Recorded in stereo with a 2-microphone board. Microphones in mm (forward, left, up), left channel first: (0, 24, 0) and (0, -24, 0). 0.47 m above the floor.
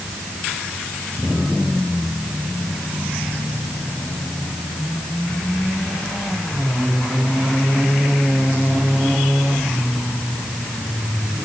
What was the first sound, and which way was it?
Only background noise.